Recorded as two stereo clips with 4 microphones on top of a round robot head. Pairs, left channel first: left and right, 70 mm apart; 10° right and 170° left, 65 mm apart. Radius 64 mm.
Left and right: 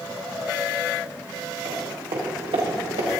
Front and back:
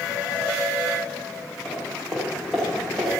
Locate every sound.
1.6 s footsteps: 90° right, 6 m; by 3.1 s 110° right, 4.5 m